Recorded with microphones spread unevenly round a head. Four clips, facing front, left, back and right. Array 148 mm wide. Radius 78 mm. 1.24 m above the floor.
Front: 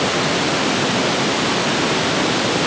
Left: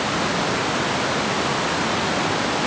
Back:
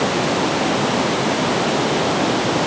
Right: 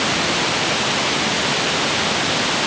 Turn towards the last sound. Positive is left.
No sound to turn to.